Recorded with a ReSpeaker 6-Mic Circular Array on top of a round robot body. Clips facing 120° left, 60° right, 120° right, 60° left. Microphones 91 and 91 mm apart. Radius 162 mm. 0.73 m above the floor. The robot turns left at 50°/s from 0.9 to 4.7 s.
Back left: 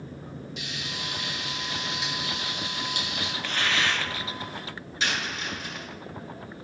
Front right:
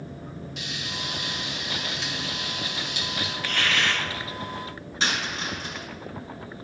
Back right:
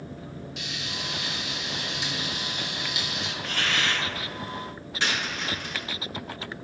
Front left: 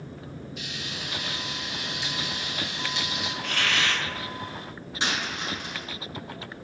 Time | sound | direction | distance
0.6 | frying | 100° right | 2 m
3.4 | a hiss | 65° left | 4.5 m
5.0 | a dropped coin | 10° right | 5 m